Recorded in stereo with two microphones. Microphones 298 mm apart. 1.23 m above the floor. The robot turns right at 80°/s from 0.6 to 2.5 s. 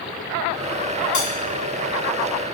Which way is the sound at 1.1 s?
65° left (ahead or behind).